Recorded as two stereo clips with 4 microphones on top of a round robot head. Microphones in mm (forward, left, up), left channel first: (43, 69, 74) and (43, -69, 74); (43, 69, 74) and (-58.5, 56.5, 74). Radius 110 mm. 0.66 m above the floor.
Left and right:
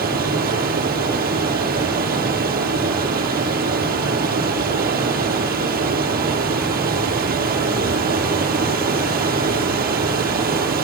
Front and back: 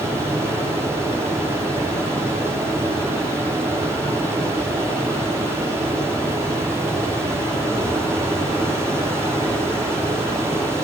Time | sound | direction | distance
0.0 | running water | 100° right | 9.5 m